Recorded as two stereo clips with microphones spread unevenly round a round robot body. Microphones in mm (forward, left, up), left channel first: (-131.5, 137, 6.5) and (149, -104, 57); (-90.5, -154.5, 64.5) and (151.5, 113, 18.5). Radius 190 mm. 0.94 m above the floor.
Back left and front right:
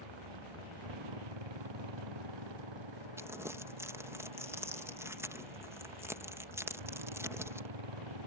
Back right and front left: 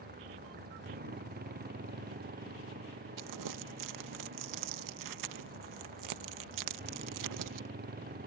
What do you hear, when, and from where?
0.0 s a motorcycle: 20° right
3.2 s crumpling: 50° left